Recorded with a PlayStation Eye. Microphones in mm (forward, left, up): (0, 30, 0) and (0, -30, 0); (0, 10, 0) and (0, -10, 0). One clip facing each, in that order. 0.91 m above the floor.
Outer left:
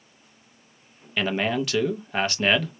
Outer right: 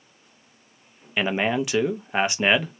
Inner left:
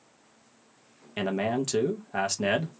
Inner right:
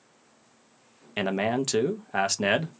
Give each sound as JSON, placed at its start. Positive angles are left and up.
{"t": 1.2, "sound": "a man speaking", "side_deg": -20, "distance_m": 0.5}